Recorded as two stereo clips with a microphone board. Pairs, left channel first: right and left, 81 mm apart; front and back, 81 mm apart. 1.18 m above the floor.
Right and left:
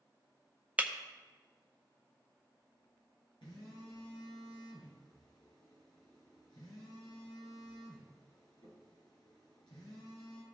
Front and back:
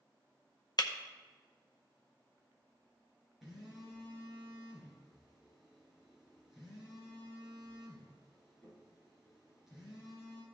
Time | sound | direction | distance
0.8 | breaking glass | 20° left | 0.7 m
3.4 | a phone buzzing | 95° right | 4 m